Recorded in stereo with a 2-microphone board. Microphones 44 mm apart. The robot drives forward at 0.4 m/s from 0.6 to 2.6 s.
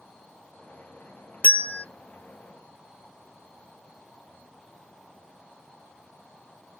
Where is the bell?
35° left (ahead or behind), 0.6 m; by 1.8 s 30° left (ahead or behind), 0.7 m.